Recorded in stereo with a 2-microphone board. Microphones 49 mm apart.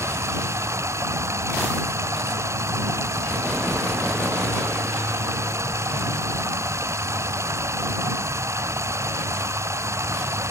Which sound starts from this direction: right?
Running water, at 0.0 s.